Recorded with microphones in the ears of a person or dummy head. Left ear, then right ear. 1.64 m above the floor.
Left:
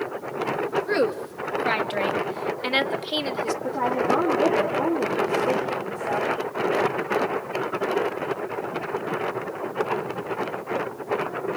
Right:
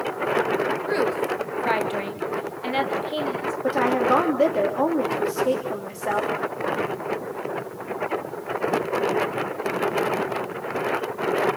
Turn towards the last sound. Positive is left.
turn(degrees=-80)